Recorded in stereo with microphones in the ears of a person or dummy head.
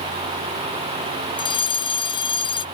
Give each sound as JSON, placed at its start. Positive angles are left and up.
{"t": 1.4, "sound": "a fire alarm", "side_deg": 25}